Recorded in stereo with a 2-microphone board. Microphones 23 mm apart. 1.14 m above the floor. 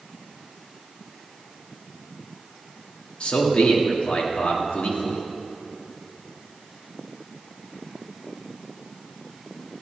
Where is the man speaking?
55° left (ahead or behind), 1.9 m.